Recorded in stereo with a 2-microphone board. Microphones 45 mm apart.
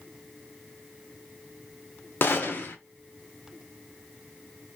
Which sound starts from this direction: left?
A gunshot, at 2.2 s.